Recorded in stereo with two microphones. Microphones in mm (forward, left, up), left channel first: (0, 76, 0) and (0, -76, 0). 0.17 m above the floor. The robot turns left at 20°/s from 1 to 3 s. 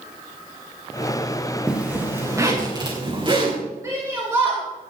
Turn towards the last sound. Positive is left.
turn(degrees=-20)  # may be behind; listen again after turning